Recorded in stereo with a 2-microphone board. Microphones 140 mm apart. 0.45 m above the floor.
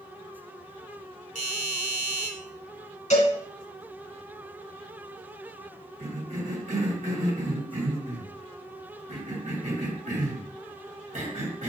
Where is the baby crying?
No baby crying in this recording.